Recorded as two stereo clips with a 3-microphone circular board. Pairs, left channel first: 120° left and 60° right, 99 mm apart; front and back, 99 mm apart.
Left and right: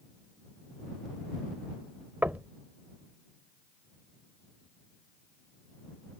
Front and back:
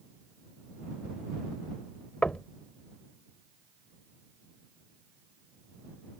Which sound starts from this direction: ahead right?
Knocking, at 2.2 s.